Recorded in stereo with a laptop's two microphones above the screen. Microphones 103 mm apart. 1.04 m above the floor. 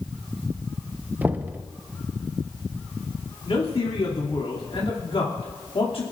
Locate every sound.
1.2 s knocking: 15° right (ahead or behind), 0.9 m
3.5 s a man speaking: 70° left (ahead or behind), 2.5 m